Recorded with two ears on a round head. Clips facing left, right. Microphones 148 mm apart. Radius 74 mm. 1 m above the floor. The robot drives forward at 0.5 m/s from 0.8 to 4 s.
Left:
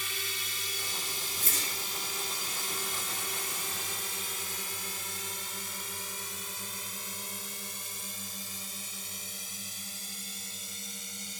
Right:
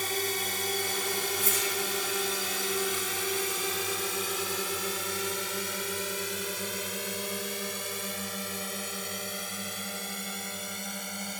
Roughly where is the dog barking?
No dog barking in this recording.